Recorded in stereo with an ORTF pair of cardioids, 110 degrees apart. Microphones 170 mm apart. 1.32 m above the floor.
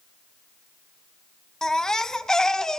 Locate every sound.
1.6 s a baby crying: 5° left, 0.8 m